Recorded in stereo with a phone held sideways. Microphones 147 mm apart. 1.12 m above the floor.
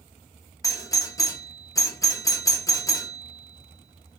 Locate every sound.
0.6 s a doorbell: 20° left (ahead or behind), 0.7 m